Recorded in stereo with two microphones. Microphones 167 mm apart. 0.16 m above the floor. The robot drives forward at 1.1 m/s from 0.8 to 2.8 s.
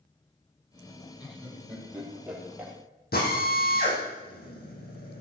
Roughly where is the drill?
Left.